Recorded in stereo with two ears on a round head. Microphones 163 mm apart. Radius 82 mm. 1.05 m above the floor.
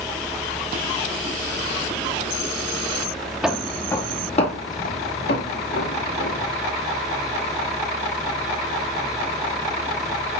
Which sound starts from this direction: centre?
Footsteps, at 3.4 s.